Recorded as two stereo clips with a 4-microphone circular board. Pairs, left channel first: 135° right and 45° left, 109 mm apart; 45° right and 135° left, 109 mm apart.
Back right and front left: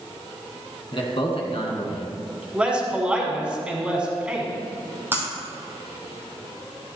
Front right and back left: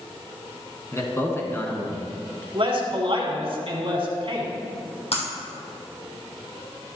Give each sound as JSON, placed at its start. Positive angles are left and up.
{"t": 0.9, "sound": "a man speaking", "azimuth_deg": -105, "distance_m": 2.0}
{"t": 2.5, "sound": "a man speaking", "azimuth_deg": 125, "distance_m": 2.5}
{"t": 5.1, "sound": "breaking glass", "azimuth_deg": -25, "distance_m": 2.5}